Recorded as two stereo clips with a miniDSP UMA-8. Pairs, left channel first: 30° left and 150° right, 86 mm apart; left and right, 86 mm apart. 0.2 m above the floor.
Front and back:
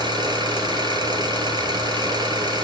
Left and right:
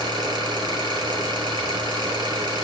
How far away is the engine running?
About 3.5 m.